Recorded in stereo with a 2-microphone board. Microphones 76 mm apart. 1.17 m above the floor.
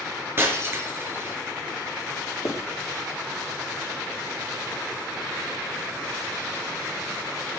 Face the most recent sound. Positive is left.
turn(degrees=45)  # may be behind; listen again after turning